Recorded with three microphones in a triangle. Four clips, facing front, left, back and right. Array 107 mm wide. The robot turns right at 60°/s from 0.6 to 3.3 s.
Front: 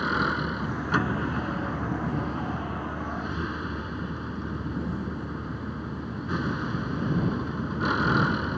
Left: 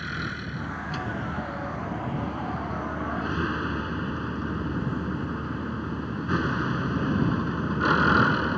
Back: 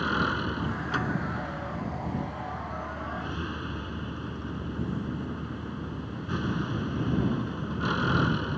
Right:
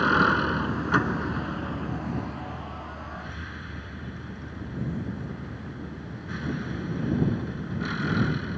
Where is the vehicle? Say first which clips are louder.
Right 12 dB, front 1 dB; 80° right; by 8.6 s 80° left.